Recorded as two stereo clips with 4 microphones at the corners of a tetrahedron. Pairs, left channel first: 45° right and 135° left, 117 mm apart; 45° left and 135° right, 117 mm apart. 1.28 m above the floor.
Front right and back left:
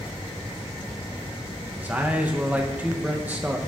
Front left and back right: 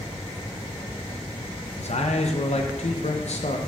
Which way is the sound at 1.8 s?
60° left.